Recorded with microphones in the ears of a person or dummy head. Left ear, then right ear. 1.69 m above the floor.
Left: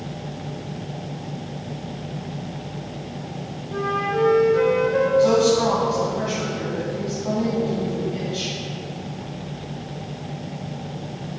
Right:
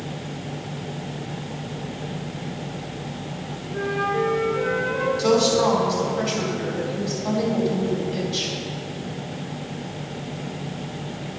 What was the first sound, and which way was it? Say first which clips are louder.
A flute: left 1 dB; 60° left (ahead or behind).